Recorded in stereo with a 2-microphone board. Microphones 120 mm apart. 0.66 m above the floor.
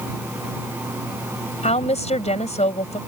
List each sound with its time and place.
1.6 s a woman speaking: 65° left (ahead or behind)